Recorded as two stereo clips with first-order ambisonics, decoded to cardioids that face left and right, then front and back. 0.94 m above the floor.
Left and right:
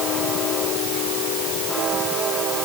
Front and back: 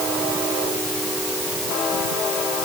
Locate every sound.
Only background noise.